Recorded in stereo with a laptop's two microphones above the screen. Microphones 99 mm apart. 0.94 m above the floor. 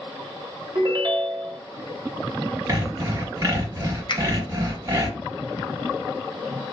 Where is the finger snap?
45° left (ahead or behind), 0.8 m.